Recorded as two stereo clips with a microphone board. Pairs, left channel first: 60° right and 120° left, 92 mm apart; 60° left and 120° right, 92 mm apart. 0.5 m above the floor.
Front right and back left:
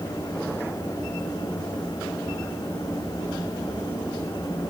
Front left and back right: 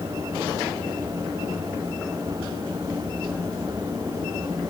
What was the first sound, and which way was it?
Only background noise.